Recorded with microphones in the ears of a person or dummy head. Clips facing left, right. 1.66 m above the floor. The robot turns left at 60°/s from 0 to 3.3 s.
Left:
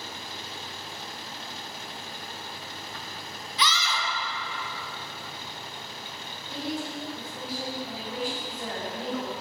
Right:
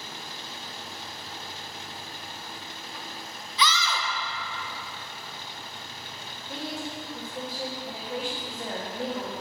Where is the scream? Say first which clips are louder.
Right 2 dB; 65° right (ahead or behind), 0.6 m.